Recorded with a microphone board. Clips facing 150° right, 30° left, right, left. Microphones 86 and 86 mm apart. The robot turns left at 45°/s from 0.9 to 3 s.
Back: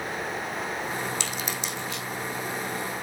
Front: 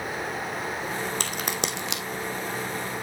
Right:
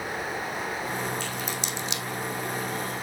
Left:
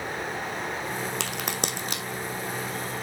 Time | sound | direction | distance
1.2 | a crack | 75° left | 1.1 m